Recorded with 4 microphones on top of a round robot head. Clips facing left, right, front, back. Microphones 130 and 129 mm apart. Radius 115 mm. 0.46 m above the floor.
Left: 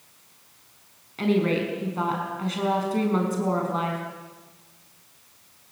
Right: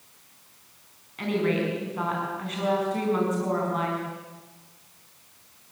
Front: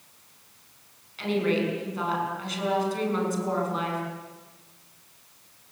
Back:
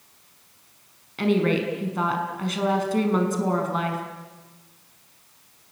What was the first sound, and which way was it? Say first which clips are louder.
A woman speaking: left 3 dB, back 3 dB; 150° left.